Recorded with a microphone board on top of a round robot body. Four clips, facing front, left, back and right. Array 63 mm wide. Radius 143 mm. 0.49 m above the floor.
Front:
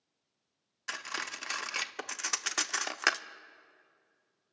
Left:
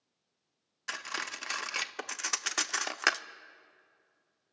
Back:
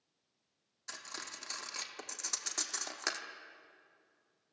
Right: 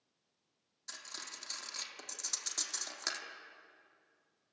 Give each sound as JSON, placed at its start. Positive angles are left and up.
{"t": 0.9, "sound": "cutlery clinking", "azimuth_deg": 45, "distance_m": 0.8}